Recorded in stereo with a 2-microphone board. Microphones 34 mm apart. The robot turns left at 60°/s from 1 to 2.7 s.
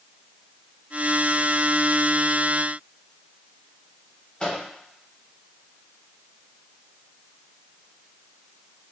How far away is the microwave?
About 1.0 m.